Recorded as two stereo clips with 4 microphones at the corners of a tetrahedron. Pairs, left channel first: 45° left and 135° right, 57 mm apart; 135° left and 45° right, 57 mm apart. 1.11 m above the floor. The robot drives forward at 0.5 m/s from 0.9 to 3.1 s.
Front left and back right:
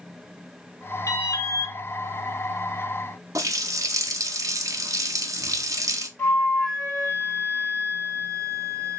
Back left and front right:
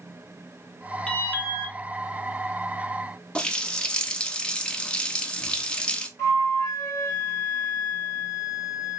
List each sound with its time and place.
1.1 s an alarm: 70° left, 1.2 m; by 1.8 s 85° left, 1.2 m
3.4 s a running tap: 150° right, 0.6 m
6.2 s a flute: 105° left, 1.8 m